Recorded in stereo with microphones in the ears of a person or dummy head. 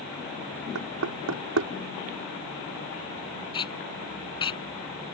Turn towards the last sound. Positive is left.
turn(degrees=30)  # may be behind; listen again after turning